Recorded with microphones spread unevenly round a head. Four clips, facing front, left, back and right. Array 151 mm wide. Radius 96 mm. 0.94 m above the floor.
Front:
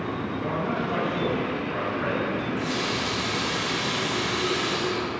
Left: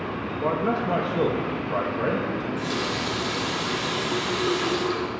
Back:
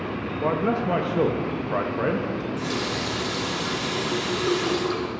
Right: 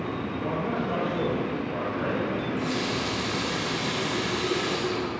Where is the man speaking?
135° left, 0.8 m.